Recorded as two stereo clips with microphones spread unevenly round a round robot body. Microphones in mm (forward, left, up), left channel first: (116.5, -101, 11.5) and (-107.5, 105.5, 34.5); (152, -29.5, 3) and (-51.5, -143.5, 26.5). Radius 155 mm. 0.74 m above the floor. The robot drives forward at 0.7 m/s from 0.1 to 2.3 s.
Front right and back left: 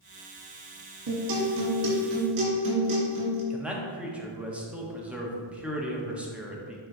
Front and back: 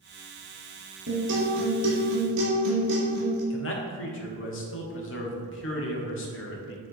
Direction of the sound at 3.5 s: 50° left.